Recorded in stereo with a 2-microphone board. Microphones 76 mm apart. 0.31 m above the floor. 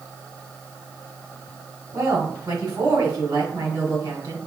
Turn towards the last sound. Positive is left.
turn(degrees=-65)  # may be behind; listen again after turning